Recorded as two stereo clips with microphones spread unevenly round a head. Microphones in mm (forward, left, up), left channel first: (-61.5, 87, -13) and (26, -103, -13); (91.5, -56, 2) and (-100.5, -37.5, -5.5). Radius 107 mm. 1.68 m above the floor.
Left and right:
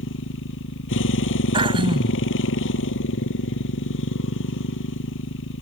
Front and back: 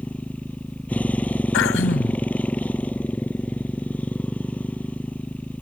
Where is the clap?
I don't hear a clap.